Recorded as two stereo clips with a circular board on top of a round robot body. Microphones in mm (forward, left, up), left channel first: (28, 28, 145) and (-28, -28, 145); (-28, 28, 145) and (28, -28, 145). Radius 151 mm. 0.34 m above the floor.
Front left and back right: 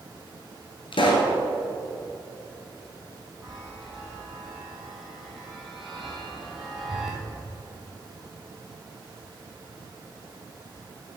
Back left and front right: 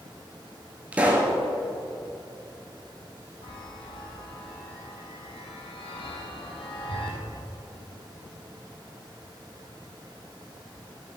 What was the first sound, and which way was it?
A pop, 30° left.